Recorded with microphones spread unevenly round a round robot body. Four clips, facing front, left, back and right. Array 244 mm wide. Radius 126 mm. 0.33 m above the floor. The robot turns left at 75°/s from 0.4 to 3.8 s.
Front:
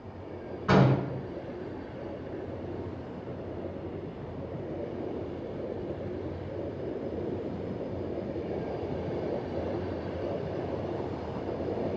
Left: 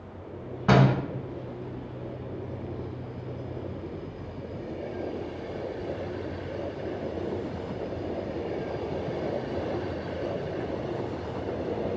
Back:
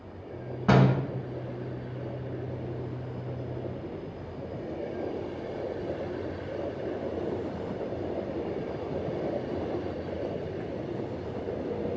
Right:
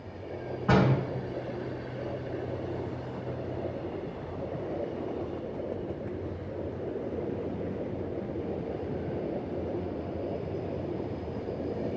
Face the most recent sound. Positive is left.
turn(degrees=-100)